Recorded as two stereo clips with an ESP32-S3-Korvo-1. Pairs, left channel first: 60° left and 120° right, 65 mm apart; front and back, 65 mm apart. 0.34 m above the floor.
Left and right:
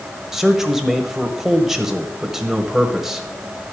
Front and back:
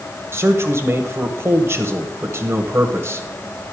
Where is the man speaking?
155° left, 1.3 m.